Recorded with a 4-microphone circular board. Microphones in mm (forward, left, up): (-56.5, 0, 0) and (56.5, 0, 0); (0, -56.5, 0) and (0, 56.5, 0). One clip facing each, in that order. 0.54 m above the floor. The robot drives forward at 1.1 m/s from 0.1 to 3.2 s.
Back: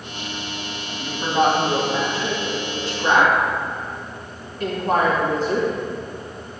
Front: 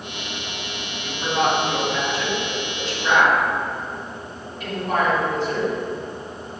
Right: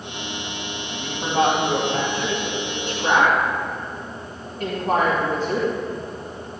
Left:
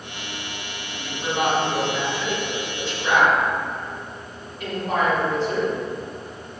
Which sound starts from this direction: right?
A woman speaking, at 0.9 s.